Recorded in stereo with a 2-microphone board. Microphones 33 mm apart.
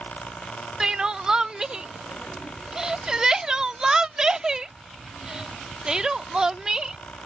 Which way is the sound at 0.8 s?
15° right (ahead or behind).